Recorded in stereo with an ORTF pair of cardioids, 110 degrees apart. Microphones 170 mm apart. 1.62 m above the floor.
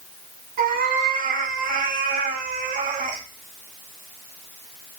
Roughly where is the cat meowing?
Ahead right.